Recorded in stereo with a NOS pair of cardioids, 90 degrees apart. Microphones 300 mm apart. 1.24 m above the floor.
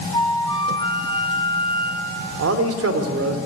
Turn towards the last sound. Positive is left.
turn(degrees=-55)